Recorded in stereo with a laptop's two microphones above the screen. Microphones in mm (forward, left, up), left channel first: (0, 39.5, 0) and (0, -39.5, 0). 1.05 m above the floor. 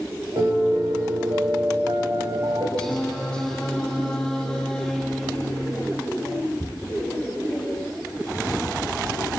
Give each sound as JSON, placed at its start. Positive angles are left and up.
{"t": 0.4, "sound": "a piano", "side_deg": -60, "distance_m": 4.0}
{"t": 2.8, "sound": "singing", "side_deg": 10, "distance_m": 9.5}